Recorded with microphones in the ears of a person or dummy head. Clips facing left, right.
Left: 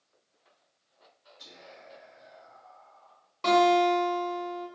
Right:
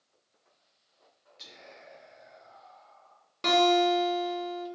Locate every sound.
1.4 s whispering: 35° right (ahead or behind), 1.1 m
3.4 s a guitar: 25° right (ahead or behind), 1.0 m